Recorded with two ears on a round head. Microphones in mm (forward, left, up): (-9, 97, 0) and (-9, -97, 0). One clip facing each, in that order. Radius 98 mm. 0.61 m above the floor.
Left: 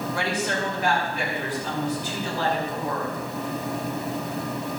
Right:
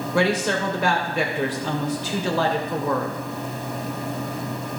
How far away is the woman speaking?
About 2.5 m.